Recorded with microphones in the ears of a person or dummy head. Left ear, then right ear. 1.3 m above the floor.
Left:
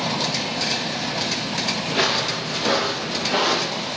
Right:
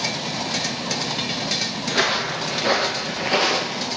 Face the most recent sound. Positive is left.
turn(degrees=-45)  # may be behind; listen again after turning